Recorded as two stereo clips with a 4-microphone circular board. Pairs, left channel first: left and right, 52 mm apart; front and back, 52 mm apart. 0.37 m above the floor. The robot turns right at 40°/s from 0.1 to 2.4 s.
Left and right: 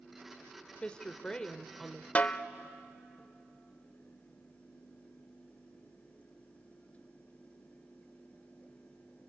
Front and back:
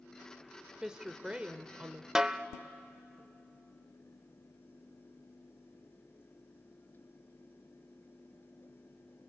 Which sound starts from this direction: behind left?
A woman speaking, at 0.8 s.